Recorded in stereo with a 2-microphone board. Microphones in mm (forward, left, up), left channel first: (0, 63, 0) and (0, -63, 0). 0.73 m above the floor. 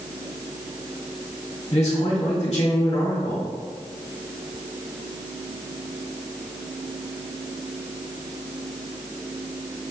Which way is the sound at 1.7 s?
60° left (ahead or behind).